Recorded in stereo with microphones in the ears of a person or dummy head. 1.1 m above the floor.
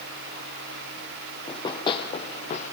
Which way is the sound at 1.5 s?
25° left (ahead or behind).